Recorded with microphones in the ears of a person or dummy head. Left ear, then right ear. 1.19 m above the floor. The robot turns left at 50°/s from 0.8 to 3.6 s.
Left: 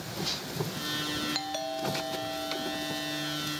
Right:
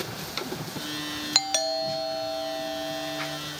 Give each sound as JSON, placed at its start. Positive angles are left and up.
{"t": 1.4, "sound": "a doorbell", "azimuth_deg": -50, "distance_m": 0.7}